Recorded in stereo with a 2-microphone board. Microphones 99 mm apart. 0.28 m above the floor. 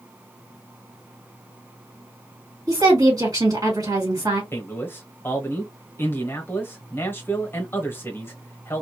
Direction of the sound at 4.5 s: 20° left (ahead or behind).